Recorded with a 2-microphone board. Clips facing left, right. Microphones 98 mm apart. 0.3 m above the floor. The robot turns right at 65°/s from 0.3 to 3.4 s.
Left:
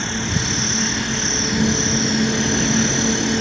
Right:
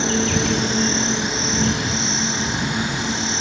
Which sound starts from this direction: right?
An insect, at 0.0 s.